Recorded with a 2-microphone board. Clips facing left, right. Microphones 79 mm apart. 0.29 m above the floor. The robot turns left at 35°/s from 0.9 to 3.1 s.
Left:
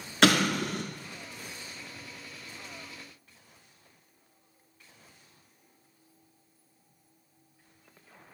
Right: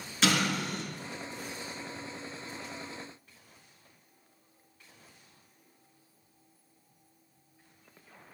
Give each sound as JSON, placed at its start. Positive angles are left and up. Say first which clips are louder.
{"t": 0.2, "sound": "an explosion", "louder": "left 5 dB", "side_deg": 65, "distance_m": 0.6}